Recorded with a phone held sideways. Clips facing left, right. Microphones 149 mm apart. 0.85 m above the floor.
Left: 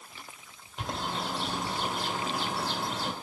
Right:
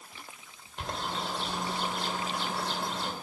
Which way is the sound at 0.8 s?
Centre (ahead or behind).